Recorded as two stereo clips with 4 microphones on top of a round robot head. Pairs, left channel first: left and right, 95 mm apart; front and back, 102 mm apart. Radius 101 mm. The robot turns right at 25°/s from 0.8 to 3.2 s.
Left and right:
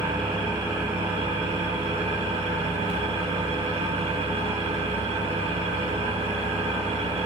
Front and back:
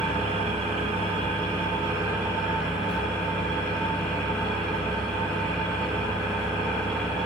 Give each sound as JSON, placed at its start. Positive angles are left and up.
{"t": 0.0, "sound": "an engine running", "azimuth_deg": -145, "distance_m": 3.0}